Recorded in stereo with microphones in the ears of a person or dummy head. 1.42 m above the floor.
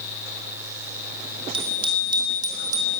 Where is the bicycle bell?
25° right (ahead or behind), 2.5 m; by 2.9 s 15° right (ahead or behind), 3.5 m.